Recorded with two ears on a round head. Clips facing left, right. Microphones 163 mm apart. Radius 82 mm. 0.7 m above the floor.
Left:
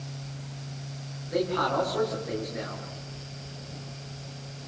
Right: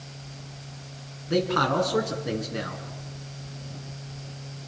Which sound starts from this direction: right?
A man speaking, at 1.3 s.